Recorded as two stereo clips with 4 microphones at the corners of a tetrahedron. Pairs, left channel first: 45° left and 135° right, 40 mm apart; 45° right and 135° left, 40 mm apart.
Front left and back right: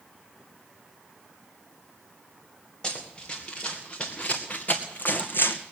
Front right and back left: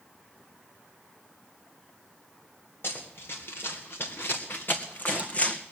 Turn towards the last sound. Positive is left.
turn(degrees=20)